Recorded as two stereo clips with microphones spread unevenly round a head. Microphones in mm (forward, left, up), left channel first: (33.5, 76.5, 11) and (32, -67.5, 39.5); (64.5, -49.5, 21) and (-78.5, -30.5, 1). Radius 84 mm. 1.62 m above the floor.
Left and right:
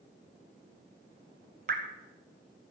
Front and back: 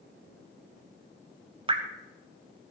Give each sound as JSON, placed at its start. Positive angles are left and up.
{"t": 1.7, "sound": "dripping", "azimuth_deg": -135, "distance_m": 1.7}